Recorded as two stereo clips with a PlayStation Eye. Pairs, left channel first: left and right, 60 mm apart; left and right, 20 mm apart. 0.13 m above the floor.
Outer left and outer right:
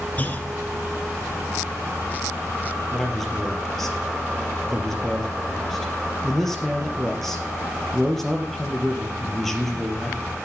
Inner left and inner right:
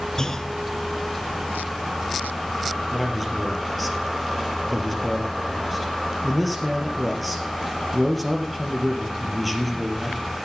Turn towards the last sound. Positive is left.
turn(degrees=5)  # may be behind; listen again after turning